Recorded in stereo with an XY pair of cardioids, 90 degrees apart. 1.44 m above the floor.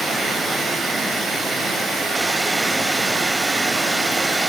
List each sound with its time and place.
0.0 s running water: 30° right, 7.5 m